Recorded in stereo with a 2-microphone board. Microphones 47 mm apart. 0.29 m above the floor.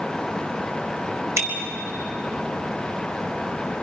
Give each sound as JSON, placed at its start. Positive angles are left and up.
{"t": 1.4, "sound": "a bicycle bell", "side_deg": -80, "distance_m": 3.5}